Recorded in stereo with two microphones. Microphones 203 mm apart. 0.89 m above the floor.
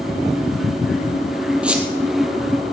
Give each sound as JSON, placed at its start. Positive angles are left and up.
{"t": 1.6, "sound": "a squeak", "side_deg": -5, "distance_m": 1.5}